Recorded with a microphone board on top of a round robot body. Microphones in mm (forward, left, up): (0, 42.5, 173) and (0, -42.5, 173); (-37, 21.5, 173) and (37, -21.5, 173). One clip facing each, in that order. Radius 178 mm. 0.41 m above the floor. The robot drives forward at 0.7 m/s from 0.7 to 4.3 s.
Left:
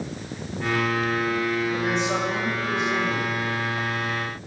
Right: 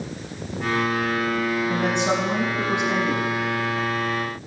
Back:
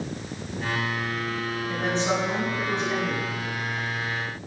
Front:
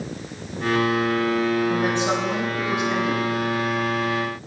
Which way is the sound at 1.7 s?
105° right.